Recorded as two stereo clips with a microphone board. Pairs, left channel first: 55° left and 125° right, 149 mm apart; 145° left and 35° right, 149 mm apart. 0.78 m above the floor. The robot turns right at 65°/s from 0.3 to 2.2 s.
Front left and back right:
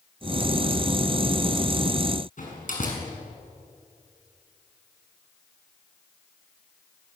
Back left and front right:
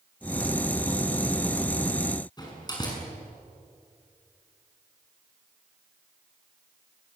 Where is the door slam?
85° left, 7 m.